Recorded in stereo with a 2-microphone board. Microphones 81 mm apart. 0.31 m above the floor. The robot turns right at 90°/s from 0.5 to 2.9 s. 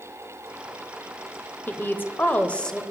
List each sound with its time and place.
1.7 s a woman speaking: 25° left (ahead or behind), 0.9 m; by 2.8 s 5° left (ahead or behind), 0.9 m